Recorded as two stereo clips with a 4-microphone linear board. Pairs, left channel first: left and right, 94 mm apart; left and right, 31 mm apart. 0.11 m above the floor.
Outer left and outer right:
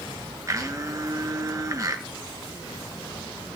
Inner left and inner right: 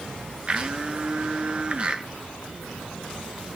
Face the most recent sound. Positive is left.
turn(degrees=-35)  # may be behind; listen again after turning